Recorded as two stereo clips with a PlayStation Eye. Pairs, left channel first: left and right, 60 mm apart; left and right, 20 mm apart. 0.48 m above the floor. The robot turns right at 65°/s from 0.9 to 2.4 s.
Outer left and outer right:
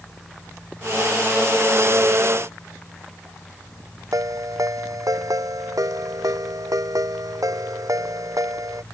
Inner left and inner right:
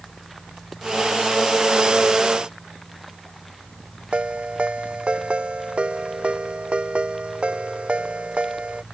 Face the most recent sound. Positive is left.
turn(degrees=-85)